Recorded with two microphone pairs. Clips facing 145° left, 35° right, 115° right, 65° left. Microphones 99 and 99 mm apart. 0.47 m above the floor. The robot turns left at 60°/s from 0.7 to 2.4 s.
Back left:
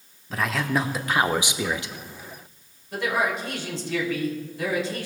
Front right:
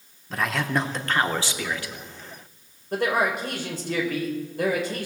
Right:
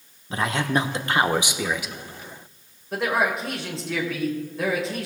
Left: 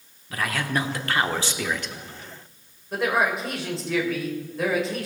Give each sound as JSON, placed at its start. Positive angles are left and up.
{"t": 0.3, "sound": "a man speaking", "azimuth_deg": -125, "distance_m": 0.7}
{"t": 2.9, "sound": "a man speaking", "azimuth_deg": -25, "distance_m": 2.5}